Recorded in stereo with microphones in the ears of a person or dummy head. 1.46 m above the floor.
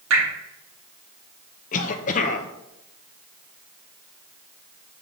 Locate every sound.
0.1 s dripping: 80° right, 2.5 m
1.7 s a cough: 45° left (ahead or behind), 0.8 m